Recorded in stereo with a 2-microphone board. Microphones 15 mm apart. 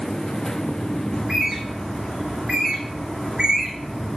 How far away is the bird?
About 2 m.